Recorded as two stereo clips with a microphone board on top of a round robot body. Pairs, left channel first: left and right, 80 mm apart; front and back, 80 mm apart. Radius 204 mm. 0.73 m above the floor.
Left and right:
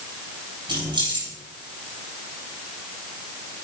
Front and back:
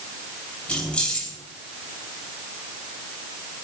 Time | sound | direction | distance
0.7 | keys jangling | 80° right | 7.5 m